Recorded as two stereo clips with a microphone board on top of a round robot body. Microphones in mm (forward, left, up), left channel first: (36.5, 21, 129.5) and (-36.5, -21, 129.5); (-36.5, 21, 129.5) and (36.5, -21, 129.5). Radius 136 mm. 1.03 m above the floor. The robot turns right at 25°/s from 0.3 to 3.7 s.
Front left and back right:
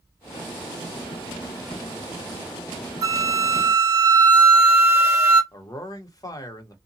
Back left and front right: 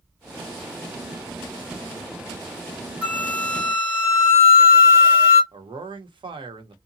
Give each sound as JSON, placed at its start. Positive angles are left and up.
{"t": 3.0, "sound": "a flute", "azimuth_deg": -110, "distance_m": 1.3}
{"t": 5.5, "sound": "a man speaking", "azimuth_deg": -15, "distance_m": 1.0}